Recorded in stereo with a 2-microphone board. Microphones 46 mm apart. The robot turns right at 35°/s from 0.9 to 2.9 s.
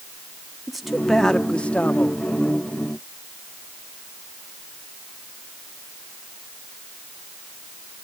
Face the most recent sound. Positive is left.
turn(degrees=70)